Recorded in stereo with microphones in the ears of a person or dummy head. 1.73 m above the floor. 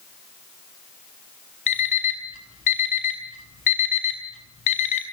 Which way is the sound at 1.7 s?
40° left (ahead or behind).